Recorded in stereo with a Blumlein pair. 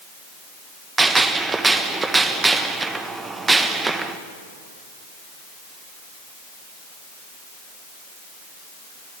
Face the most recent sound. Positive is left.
turn(degrees=-10)